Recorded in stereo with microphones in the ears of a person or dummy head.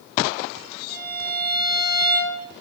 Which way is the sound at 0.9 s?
25° right (ahead or behind).